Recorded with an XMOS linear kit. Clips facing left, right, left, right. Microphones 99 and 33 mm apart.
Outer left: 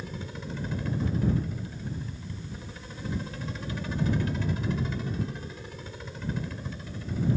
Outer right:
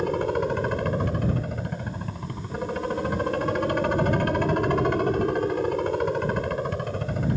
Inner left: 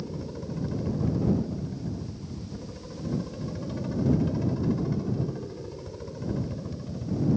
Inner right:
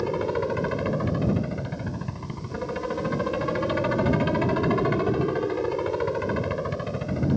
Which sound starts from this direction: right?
A helicopter, at 0.0 s.